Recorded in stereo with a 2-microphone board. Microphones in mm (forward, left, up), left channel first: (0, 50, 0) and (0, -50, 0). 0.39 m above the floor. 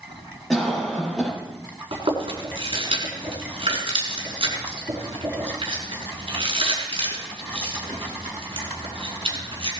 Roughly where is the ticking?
No ticking in this recording.